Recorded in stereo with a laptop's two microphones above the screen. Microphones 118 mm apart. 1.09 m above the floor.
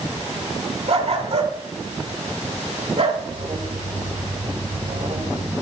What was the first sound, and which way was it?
A dog barking, 55° right (ahead or behind).